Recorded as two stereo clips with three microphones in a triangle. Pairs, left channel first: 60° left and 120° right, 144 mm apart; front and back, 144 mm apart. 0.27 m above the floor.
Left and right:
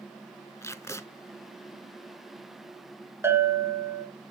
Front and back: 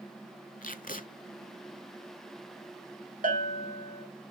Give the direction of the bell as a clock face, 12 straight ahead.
6 o'clock.